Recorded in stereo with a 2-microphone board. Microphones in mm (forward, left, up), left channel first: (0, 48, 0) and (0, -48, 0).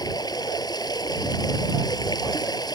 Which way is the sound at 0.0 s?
40° left (ahead or behind).